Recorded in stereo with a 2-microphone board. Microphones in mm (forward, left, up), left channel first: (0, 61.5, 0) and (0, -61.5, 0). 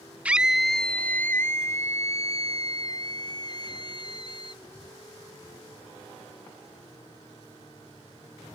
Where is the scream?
10° right (ahead or behind); by 4.6 s 40° left (ahead or behind).